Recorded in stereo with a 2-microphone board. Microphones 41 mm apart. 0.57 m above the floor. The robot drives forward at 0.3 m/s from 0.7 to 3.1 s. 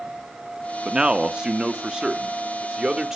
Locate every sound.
0.8 s a man speaking: 20° right (ahead or behind), 0.7 m; by 3.2 s 15° right (ahead or behind), 1.2 m